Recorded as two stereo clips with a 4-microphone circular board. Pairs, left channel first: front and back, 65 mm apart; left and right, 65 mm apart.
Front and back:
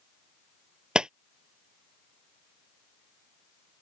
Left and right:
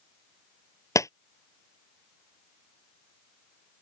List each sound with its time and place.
0.9 s a clap: 105° left